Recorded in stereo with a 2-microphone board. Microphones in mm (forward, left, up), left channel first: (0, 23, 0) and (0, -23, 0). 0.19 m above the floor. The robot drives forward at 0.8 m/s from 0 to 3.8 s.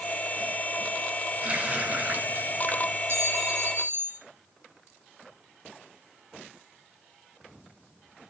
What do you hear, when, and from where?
1.4 s a running tap: 30° right (ahead or behind), 2.0 m; by 3.0 s 50° right (ahead or behind), 1.3 m
3.1 s a clink: 55° right (ahead or behind), 2 m; by 4.2 s 45° right (ahead or behind), 2.5 m